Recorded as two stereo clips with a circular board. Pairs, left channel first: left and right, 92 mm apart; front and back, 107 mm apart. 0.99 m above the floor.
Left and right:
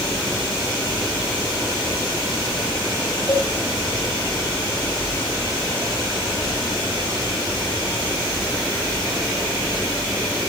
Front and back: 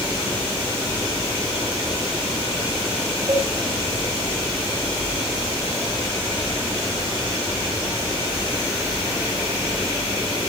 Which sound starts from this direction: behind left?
A cowbell, at 3.3 s.